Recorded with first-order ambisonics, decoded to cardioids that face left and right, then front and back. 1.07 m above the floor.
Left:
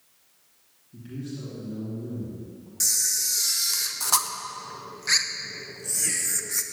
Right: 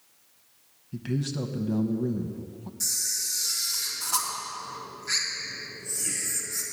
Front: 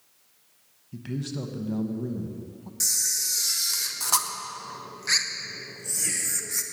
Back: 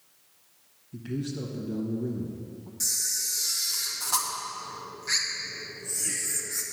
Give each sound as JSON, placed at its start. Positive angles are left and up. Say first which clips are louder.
{"t": 0.9, "sound": "a man speaking", "louder": "right 6 dB, even", "azimuth_deg": -60, "distance_m": 1.1}
{"t": 2.8, "sound": "a camera shutter", "louder": "left 4 dB, front 3 dB", "azimuth_deg": 60, "distance_m": 0.9}